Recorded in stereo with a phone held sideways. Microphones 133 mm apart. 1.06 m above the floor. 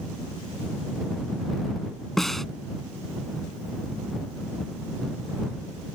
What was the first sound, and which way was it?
A snare drum, centre (ahead or behind).